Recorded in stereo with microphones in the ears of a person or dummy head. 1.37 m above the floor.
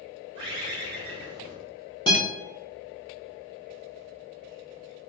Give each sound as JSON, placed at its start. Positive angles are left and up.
{"t": 0.3, "sound": "a bird", "side_deg": -25, "distance_m": 1.0}
{"t": 2.1, "sound": "a guitar", "side_deg": 20, "distance_m": 1.0}